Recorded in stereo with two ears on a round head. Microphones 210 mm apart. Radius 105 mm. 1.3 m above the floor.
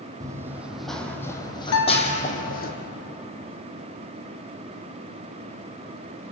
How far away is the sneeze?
No sneeze in this recording.